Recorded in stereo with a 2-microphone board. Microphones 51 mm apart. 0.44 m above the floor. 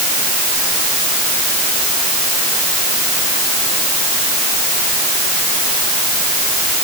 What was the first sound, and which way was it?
Only background noise.